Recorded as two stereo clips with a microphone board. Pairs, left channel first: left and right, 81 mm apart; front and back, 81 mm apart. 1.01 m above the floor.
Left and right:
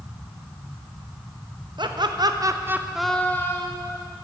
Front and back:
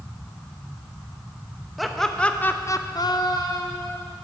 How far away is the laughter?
About 1.0 m.